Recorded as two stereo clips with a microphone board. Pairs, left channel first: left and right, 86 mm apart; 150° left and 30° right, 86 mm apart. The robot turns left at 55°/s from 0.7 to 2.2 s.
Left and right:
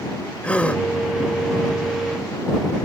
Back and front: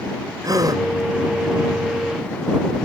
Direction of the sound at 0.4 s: 15° left.